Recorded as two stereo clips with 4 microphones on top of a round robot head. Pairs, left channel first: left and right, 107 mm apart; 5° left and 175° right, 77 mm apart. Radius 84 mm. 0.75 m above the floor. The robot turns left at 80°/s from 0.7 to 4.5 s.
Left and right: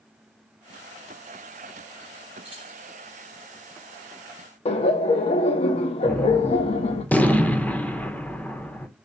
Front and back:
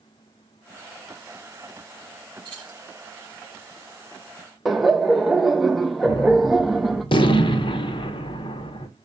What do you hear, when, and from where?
2.5 s keys jangling: 135° right, 5.5 m; by 2.8 s 160° right, 5.5 m
4.7 s laughter: 95° left, 0.7 m
6.0 s a gunshot: 15° left, 0.8 m